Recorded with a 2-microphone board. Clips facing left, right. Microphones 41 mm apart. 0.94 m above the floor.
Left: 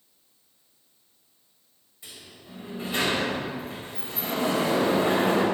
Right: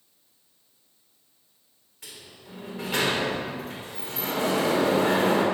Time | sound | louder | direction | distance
2.0 | a sliding door | even | 75° right (ahead or behind) | 3.5 m